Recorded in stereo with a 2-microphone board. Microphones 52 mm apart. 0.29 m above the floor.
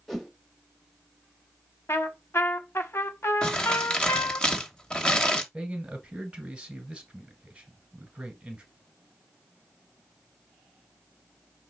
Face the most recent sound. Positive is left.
turn(degrees=-20)  # may be behind; listen again after turning